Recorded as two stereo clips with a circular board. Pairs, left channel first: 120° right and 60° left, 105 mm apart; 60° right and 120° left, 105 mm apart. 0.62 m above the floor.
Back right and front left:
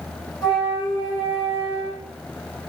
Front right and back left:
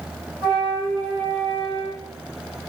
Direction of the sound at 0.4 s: 170° right.